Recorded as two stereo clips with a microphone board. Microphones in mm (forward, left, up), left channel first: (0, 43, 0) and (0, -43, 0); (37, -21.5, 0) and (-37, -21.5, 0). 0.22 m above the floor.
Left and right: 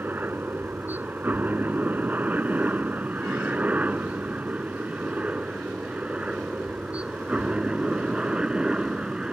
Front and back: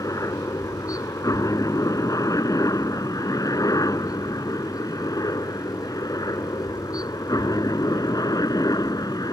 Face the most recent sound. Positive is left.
turn(degrees=-10)